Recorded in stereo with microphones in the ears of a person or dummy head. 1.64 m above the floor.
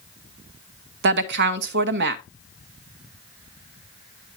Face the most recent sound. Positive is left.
turn(degrees=-55)  # may be behind; listen again after turning